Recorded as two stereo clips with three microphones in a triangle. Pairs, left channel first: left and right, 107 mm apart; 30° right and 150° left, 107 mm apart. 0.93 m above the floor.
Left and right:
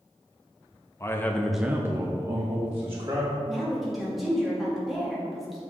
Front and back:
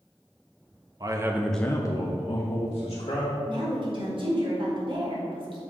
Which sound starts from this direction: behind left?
A man speaking, at 1.0 s.